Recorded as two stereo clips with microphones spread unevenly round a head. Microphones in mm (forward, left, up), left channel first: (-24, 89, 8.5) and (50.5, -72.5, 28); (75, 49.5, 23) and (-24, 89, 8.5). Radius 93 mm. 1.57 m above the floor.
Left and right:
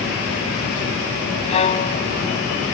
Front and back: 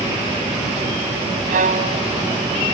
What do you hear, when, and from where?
1.5 s a violin: 175° left